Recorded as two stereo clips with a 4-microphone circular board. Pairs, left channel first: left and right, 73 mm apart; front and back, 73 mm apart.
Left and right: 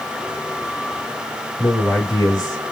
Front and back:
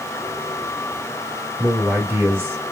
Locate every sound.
1.6 s a man speaking: 120° left, 2.5 m